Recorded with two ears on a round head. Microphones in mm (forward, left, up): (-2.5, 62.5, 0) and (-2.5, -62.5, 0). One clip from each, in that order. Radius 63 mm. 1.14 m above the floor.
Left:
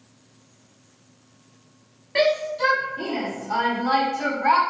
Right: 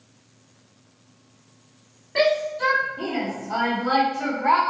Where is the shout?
90° left, 2.5 m; by 4.6 s 50° left (ahead or behind), 1.4 m.